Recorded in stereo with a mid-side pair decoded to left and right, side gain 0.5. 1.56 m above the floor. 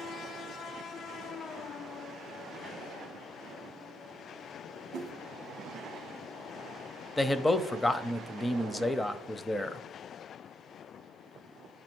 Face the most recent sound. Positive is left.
turn(degrees=20)